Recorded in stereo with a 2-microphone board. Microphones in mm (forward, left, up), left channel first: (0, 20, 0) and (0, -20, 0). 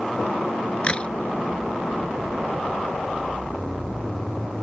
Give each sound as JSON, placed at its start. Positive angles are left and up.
{"t": 0.8, "sound": "a crack", "side_deg": 30}